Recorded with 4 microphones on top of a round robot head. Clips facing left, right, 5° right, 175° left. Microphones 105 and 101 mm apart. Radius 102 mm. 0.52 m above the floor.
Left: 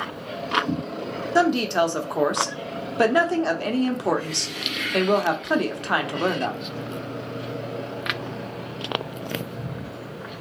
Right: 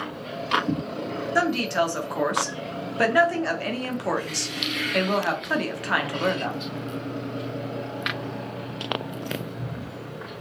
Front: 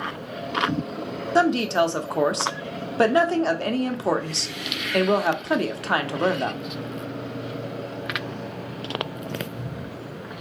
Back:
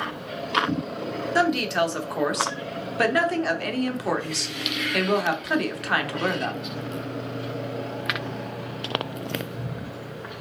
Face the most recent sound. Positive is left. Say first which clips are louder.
# left 4 dB, front 3 dB
turn(degrees=35)